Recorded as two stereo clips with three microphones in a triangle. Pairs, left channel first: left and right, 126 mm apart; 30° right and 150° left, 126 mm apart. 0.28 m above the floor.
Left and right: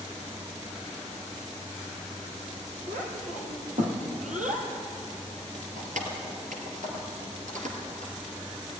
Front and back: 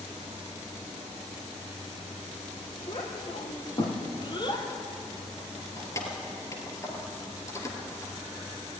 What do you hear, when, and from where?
2.9 s a child speaking: 75° right, 5.5 m; by 4.7 s 85° right, 4 m
5.8 s keys jangling: 95° right, 3.5 m